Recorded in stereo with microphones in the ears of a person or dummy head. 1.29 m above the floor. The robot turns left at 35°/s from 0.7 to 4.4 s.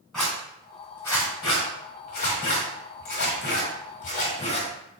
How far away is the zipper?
About 1.7 m.